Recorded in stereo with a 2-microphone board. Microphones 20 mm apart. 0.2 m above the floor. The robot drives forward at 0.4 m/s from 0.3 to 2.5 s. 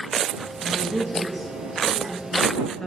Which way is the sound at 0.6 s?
15° left (ahead or behind).